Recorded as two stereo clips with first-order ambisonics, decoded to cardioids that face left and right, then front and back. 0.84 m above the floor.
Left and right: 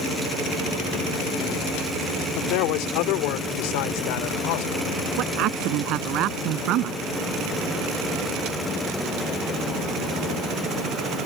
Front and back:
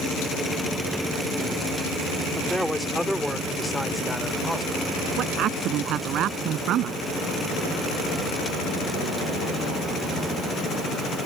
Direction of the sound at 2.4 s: 95° left.